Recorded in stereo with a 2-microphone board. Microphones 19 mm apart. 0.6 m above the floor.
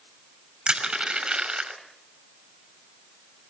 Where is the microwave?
I don't hear a microwave.